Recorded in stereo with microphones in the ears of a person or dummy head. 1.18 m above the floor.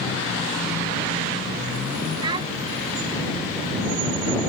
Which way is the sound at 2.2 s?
25° right (ahead or behind).